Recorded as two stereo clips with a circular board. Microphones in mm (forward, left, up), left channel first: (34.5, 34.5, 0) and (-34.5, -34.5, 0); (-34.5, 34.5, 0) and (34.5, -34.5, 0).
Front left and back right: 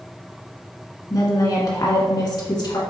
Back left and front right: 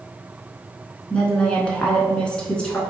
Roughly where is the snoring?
I don't hear snoring.